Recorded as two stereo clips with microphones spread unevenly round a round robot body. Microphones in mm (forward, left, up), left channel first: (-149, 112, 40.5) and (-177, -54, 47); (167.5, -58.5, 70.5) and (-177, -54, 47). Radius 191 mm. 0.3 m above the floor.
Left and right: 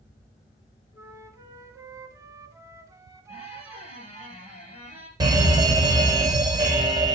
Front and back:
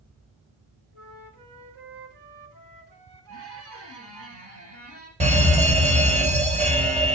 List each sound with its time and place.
0.9 s a flute: 170° right, 2 m
3.3 s a squeak: 130° left, 5 m
5.2 s a fire alarm: 140° right, 2.5 m